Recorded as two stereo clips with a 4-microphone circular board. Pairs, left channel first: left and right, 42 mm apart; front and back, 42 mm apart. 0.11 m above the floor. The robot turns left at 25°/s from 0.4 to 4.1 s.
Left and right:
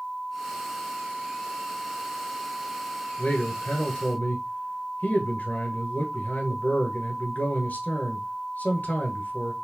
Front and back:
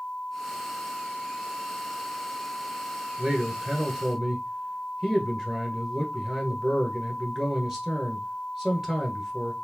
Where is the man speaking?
130° left, 1.5 m; by 9.5 s 105° left, 1.5 m.